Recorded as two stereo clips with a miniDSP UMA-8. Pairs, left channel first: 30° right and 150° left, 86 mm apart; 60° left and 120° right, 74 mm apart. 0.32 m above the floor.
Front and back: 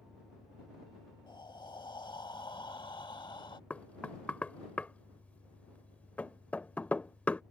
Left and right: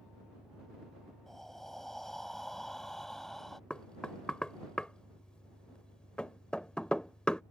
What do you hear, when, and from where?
0.0 s an engine running: 40° left
1.3 s breathing: 25° right
3.7 s knocking: 5° left